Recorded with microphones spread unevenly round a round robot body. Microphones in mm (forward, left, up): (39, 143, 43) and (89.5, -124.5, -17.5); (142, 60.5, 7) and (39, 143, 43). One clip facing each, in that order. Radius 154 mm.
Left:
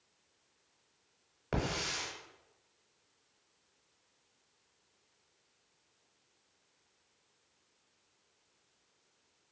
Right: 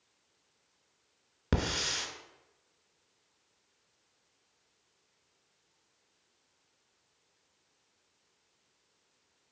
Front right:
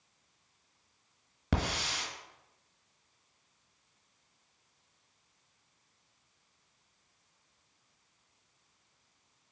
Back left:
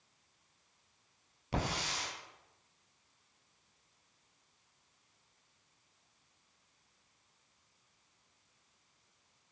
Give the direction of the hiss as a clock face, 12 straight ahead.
2 o'clock.